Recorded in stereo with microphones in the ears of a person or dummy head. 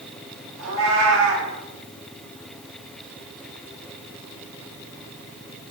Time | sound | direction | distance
0.6 | a cat meowing | 80° right | 4.5 m